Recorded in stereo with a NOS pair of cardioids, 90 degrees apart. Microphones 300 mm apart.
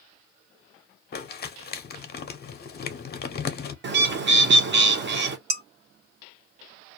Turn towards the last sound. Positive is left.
turn(degrees=-55)